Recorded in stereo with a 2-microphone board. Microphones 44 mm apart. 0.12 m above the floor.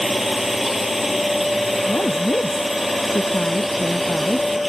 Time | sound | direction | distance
0.0 | a drone | 5° right (ahead or behind) | ?
1.9 | a woman speaking | 45° left (ahead or behind) | ?